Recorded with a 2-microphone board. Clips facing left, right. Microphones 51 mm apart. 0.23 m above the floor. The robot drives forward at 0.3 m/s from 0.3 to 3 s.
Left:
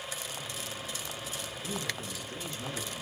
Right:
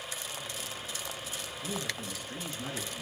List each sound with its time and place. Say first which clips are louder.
1.6 s a man speaking: right 1 dB; 50° right (ahead or behind), 3 m; by 3.0 s 45° right (ahead or behind), 3.5 m